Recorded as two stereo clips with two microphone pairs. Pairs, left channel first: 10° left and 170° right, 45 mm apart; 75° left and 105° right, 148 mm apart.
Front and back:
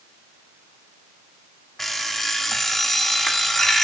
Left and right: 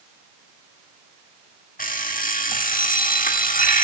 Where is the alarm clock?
95° left, 1.3 m.